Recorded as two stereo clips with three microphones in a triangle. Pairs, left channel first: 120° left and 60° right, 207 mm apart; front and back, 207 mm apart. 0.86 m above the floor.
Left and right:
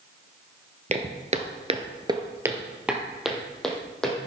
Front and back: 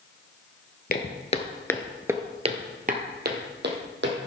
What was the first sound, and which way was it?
Footsteps, 15° right.